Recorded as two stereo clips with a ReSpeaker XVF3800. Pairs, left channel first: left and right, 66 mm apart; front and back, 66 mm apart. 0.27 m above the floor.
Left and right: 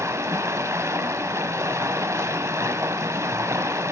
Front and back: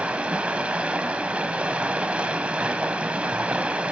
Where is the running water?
110° right, 0.7 m.